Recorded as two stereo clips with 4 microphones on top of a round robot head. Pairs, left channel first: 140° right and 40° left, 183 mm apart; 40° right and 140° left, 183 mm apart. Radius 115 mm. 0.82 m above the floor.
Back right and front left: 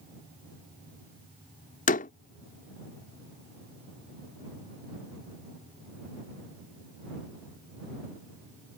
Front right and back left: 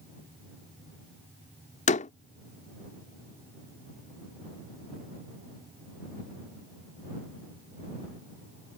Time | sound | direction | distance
1.9 | a door slam | 90° right | ?